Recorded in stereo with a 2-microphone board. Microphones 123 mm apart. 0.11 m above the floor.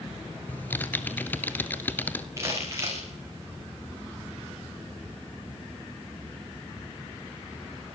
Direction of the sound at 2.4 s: 25° right (ahead or behind).